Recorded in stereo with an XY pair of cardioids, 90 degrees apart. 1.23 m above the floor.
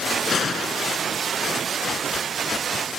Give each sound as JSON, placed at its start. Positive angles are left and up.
{"t": 0.3, "sound": "a gunshot", "azimuth_deg": 55}